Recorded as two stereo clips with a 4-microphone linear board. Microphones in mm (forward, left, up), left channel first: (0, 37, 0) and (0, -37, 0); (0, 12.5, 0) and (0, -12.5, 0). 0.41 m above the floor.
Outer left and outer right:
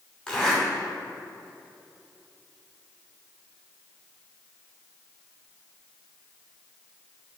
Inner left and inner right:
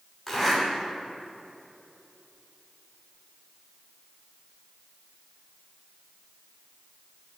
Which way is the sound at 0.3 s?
10° left (ahead or behind).